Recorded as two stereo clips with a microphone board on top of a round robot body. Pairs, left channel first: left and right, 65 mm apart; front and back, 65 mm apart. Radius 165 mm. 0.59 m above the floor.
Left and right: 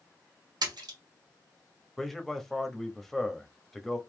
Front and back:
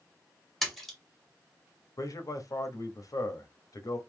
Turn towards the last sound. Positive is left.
turn(degrees=5)